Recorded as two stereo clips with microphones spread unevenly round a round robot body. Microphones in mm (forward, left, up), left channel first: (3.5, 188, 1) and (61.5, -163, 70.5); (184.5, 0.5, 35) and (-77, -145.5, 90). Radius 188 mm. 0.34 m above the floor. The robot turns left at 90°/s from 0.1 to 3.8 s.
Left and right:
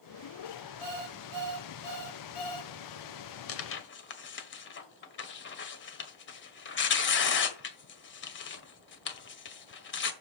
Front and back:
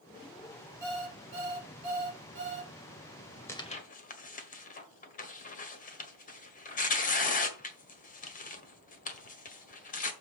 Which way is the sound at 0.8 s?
65° right.